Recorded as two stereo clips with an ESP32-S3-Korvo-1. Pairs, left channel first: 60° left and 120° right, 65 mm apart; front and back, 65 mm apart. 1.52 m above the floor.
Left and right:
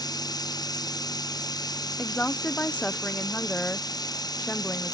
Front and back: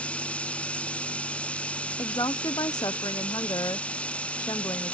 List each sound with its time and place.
0.0 s running water: 70° left
2.0 s a woman speaking: 5° right